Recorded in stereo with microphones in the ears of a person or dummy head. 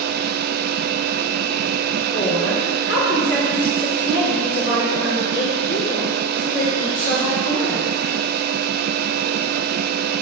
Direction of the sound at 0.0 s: 65° right (ahead or behind).